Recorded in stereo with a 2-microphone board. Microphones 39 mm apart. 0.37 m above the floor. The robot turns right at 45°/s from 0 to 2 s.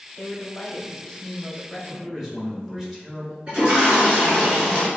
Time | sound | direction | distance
0.2 | a woman speaking | 95° left | 1.4 m
1.9 | a man speaking | 10° right (ahead or behind) | 1.1 m
3.5 | a toilet flushing | 30° right (ahead or behind) | 1.9 m